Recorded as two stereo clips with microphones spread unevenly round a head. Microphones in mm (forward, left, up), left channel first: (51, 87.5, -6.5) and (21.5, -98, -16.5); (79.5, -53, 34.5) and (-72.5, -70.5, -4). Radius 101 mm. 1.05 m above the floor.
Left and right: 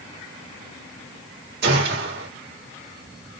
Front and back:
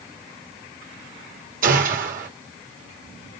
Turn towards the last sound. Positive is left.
turn(degrees=-145)